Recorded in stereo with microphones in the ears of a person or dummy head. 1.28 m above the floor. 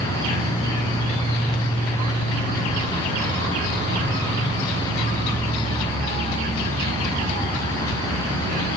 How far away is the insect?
About 1.8 m.